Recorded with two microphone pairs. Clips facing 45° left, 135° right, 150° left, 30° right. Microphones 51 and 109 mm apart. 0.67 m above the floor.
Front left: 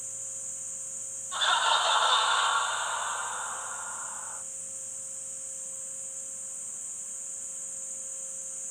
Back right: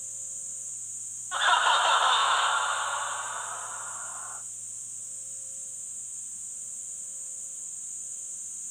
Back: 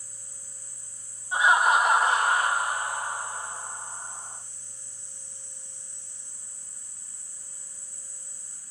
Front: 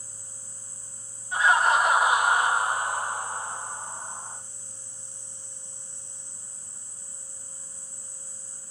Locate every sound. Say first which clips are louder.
1.3 s laughter: back right 3 dB, even; 160° right, 0.7 m; by 4.4 s 55° right, 1.5 m